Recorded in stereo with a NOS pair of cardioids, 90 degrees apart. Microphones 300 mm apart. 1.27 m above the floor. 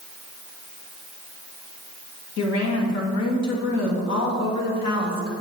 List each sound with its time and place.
2.4 s a woman speaking: 60° left, 2.5 m